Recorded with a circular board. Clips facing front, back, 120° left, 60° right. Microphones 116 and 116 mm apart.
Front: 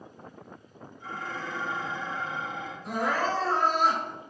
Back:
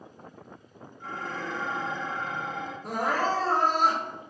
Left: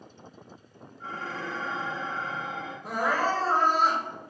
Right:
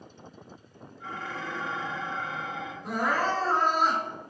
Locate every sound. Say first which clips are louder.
1.0 s dishes clattering: back 1 dB, left 1 dB; 160° left, 1.6 m
2.8 s crying: back 1 dB, left 1 dB; 165° right, 1.6 m